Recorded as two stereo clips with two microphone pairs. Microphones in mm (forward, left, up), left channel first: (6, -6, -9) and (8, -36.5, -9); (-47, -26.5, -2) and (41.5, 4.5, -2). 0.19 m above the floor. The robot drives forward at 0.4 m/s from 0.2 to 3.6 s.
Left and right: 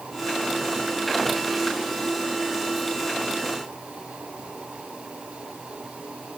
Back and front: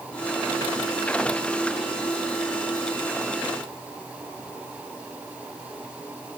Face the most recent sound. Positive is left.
No sound to turn to.